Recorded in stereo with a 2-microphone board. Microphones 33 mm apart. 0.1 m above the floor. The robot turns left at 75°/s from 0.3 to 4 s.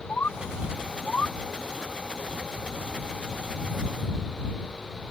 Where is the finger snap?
No finger snap in this recording.